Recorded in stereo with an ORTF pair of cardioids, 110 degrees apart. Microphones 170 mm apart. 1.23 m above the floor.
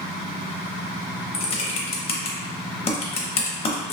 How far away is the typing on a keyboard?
About 0.7 m.